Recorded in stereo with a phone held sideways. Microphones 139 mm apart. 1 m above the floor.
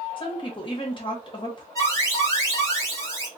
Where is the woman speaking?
35° left (ahead or behind), 1.3 m.